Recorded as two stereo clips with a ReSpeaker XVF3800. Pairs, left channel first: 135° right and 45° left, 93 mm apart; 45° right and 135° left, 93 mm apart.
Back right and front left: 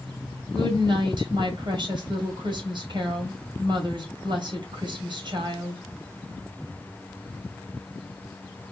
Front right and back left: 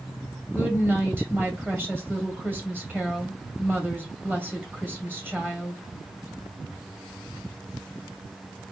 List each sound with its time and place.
0.5 s a woman speaking: 70° left, 1.9 m